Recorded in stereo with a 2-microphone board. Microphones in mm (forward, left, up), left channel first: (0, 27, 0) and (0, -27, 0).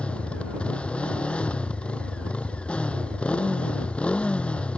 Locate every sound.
0.0 s a motorcycle: 20° left (ahead or behind)